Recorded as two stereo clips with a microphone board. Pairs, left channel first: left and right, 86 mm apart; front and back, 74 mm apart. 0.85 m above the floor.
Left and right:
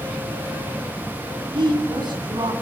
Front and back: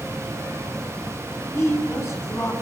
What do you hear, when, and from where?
1.5 s a woman speaking: 55° right, 6.5 m